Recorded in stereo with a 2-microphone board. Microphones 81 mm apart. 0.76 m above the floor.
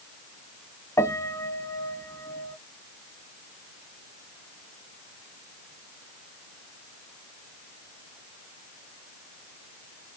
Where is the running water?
I don't hear running water.